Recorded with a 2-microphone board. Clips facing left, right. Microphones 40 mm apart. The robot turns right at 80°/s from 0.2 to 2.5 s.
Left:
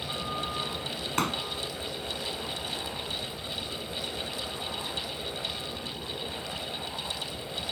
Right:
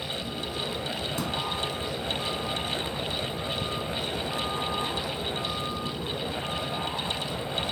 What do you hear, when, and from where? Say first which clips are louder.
0.0 s a vehicle: even; 115° left; by 7.7 s 60° right
1.2 s a pop: left 5 dB; 65° left (ahead or behind); by 1.4 s 80° left